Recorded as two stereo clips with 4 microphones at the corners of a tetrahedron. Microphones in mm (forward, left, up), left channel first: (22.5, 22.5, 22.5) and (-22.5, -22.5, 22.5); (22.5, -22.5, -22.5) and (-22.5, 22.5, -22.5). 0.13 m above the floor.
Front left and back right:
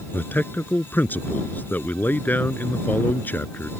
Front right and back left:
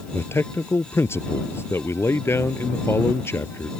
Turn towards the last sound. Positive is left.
turn(degrees=-10)